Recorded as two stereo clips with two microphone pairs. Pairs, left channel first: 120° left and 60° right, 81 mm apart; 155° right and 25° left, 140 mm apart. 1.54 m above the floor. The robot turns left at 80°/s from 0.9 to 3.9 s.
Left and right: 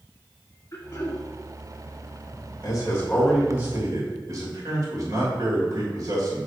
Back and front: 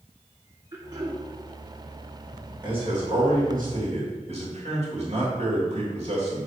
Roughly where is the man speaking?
Left.